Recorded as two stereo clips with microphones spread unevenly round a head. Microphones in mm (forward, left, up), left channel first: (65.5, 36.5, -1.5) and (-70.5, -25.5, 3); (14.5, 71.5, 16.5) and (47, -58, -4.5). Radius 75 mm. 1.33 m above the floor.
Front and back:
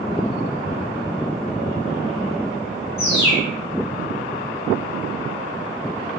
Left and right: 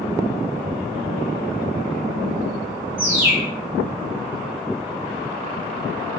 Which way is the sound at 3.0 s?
Straight ahead.